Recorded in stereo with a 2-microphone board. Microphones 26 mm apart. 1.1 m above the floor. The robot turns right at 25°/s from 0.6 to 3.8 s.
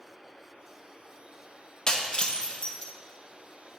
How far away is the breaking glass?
About 0.6 m.